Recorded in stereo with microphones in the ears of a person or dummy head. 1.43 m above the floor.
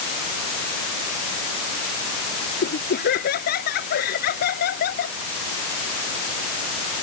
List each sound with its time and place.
2.6 s laughter: 50° left (ahead or behind)